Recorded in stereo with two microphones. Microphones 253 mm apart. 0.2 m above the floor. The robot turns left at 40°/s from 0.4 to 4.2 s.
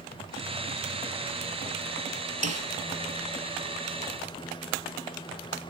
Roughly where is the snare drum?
Right.